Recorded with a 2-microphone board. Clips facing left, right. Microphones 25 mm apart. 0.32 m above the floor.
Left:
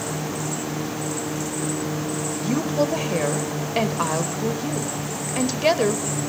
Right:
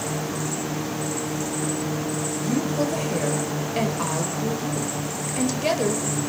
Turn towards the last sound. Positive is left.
turn(degrees=25)  # may be behind; listen again after turning